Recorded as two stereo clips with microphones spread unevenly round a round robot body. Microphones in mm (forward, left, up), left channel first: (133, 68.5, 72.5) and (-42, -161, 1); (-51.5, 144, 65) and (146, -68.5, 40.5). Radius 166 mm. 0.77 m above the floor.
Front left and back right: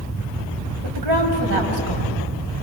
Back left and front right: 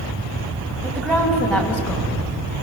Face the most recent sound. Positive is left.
turn(degrees=-135)